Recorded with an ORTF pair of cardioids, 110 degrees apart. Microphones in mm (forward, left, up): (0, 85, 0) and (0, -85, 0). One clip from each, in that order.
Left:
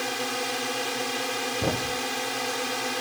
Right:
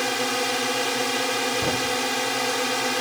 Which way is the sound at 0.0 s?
25° right.